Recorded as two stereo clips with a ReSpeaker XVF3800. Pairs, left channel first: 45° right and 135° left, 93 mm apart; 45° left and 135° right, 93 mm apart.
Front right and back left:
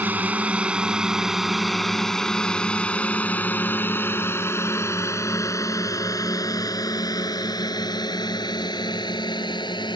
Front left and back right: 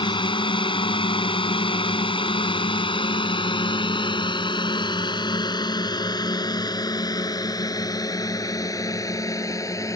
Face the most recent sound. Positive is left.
turn(degrees=-10)